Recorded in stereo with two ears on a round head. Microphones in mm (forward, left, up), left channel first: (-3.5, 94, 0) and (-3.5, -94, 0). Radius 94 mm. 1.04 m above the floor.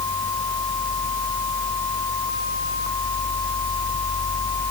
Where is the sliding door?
I don't hear a sliding door.